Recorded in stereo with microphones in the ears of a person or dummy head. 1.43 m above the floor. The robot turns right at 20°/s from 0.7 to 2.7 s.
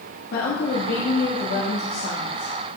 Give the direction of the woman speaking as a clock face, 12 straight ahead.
9 o'clock.